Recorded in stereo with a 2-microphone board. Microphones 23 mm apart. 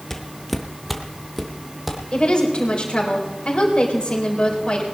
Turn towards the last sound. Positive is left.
turn(degrees=50)  # may be behind; listen again after turning